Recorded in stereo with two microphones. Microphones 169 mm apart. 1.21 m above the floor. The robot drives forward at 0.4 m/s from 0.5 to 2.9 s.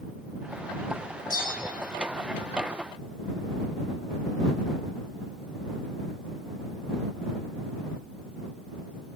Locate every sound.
1.3 s a bell: 55° left (ahead or behind), 0.7 m